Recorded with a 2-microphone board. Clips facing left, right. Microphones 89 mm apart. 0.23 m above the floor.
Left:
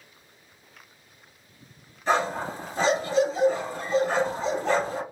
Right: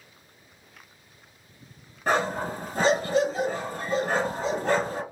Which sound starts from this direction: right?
A dog barking, at 2.1 s.